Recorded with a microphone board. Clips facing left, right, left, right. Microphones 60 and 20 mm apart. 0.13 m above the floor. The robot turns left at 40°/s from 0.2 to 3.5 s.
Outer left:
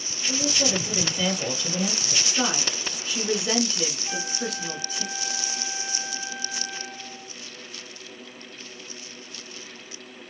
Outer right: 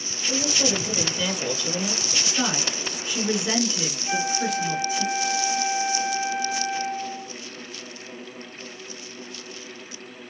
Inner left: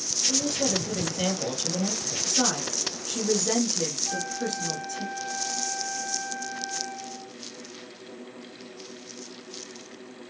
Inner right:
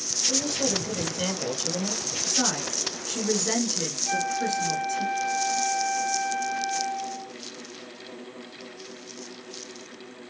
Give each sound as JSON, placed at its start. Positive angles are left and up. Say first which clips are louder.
{"t": 0.3, "sound": "a woman speaking", "louder": "outer right 1 dB, even", "azimuth_deg": -160, "distance_m": 1.9}
{"t": 2.2, "sound": "a woman speaking", "louder": "even, inner left 1 dB", "side_deg": 5, "distance_m": 1.1}
{"t": 4.0, "sound": "a flute", "louder": "outer right 6 dB, inner right 4 dB", "side_deg": -40, "distance_m": 0.9}